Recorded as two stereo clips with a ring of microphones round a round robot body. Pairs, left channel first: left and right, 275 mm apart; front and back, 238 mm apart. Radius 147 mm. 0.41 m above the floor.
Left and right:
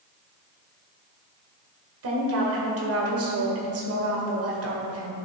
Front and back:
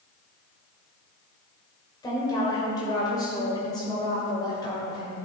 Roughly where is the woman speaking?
Right.